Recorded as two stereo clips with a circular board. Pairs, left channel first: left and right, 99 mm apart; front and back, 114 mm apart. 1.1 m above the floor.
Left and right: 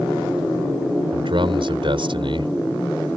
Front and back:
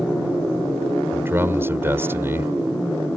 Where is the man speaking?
110° right.